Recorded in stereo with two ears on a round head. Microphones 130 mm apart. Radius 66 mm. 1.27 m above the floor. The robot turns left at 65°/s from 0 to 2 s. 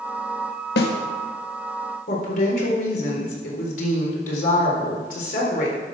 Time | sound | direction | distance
0.8 | a snare drum | 80° left | 1.4 m
2.1 | a woman speaking | 60° left (ahead or behind) | 4 m